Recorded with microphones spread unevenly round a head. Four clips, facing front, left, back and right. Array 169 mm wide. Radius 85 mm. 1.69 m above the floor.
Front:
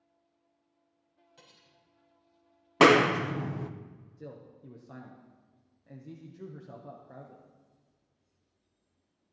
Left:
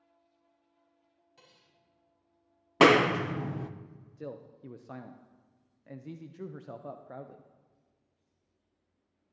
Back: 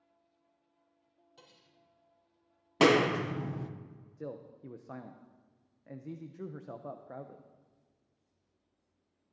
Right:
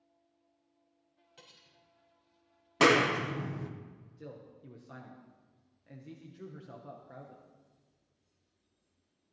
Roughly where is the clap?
Ahead left.